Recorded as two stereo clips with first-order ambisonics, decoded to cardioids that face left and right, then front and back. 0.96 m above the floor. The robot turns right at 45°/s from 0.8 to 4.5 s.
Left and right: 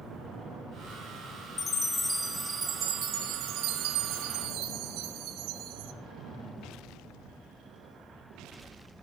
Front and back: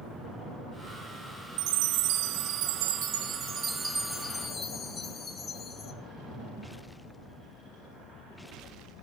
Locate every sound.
1.6 s a chime: 155° left, 2.0 m; by 5.9 s 70° right, 2.0 m